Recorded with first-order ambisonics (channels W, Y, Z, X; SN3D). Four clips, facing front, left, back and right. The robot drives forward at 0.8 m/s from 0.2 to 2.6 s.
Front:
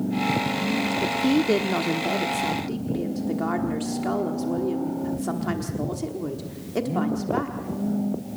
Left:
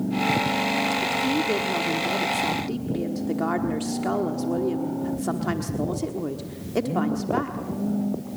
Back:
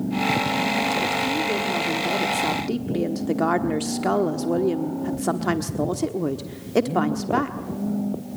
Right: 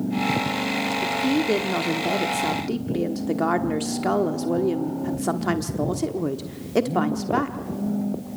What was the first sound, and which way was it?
A woman speaking, 15° right.